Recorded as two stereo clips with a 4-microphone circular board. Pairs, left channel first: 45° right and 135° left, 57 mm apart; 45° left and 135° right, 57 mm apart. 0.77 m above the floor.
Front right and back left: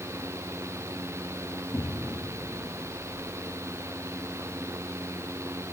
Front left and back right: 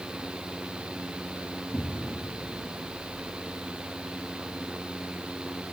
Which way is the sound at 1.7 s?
25° right.